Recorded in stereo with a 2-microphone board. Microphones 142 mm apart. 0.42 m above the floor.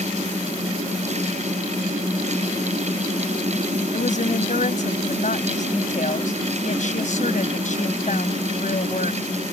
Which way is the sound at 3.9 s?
65° left (ahead or behind).